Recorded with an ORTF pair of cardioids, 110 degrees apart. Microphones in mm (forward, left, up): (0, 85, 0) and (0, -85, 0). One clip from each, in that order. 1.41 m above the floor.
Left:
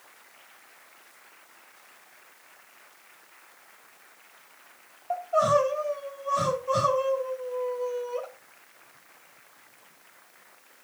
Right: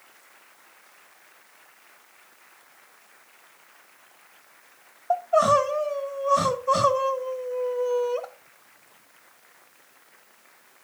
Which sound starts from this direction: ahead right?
Crying, at 5.1 s.